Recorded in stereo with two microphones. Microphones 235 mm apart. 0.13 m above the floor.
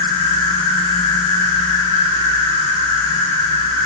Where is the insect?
15° left (ahead or behind), 1.5 m.